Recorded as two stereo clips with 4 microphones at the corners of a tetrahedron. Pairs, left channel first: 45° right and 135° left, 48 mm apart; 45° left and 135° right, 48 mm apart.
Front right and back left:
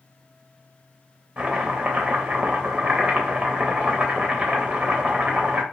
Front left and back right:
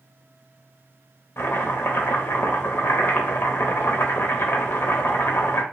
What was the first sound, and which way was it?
Chopping, 75° left.